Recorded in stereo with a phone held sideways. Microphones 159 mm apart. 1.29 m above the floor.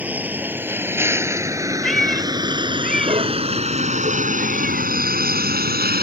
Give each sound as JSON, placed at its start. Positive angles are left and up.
{"t": 0.0, "sound": "a vehicle", "side_deg": -10}
{"t": 1.8, "sound": "a cat meowing", "side_deg": 0}